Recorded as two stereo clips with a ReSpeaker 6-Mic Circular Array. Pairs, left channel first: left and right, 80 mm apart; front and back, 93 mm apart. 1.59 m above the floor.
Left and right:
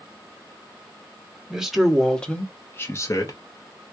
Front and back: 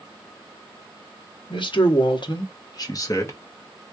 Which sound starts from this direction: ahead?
A man speaking, at 1.5 s.